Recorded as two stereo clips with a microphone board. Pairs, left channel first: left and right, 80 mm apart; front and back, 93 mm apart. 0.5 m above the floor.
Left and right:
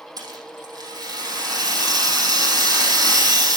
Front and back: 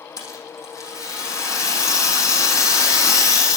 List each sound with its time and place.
0.2 s a rattle: 55° right, 4 m